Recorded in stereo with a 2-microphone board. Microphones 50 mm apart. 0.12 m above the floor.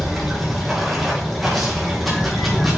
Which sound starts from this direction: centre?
Running water, at 0.0 s.